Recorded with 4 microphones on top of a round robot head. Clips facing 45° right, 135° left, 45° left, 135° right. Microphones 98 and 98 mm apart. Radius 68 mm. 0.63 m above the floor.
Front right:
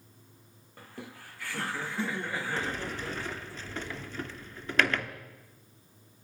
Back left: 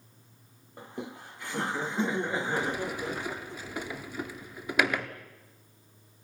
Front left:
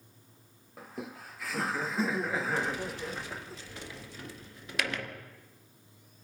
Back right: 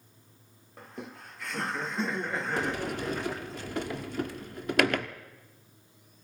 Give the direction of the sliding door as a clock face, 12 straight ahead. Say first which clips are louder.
Back left 3 dB, back right 3 dB; 5 o'clock.